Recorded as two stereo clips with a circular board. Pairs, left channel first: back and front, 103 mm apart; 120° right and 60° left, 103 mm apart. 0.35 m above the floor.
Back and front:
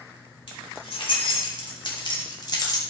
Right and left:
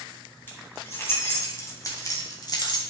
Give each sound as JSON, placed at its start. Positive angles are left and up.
{"t": 0.5, "sound": "keys jangling", "azimuth_deg": 175, "distance_m": 2.0}